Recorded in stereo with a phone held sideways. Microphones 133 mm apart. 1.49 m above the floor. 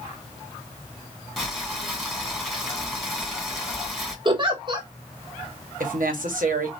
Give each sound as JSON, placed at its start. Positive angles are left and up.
{"t": 1.4, "sound": "boiling", "side_deg": 0, "distance_m": 2.0}
{"t": 4.2, "sound": "a giggle", "side_deg": -35, "distance_m": 1.0}
{"t": 5.8, "sound": "a woman speaking", "side_deg": -80, "distance_m": 1.2}